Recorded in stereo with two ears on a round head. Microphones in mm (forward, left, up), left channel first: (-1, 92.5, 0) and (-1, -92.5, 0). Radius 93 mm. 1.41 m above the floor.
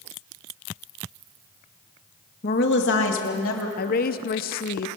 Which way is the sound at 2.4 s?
45° left (ahead or behind).